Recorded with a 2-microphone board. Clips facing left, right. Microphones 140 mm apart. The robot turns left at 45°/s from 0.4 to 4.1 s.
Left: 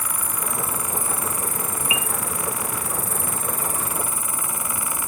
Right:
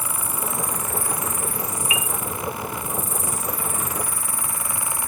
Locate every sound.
0.0 s an insect: 170° right; by 5.1 s 20° left
1.9 s a piano: 25° left (ahead or behind); by 2.1 s 35° left (ahead or behind)